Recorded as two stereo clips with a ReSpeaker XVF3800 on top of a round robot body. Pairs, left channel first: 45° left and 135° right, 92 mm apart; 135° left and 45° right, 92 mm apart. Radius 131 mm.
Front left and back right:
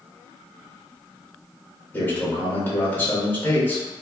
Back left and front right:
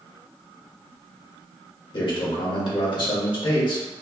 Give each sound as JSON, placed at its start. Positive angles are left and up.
{"t": 1.9, "sound": "a man speaking", "azimuth_deg": 110, "distance_m": 1.6}